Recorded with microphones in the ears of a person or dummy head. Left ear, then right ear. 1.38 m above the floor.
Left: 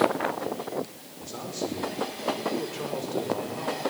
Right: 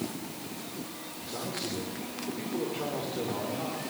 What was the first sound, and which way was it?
A man speaking, 65° left (ahead or behind).